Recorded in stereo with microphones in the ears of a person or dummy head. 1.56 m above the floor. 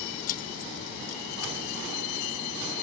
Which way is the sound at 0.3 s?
45° left (ahead or behind).